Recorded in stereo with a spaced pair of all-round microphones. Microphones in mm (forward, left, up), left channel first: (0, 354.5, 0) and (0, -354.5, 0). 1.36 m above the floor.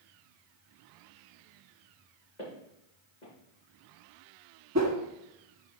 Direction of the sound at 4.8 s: 20° right (ahead or behind).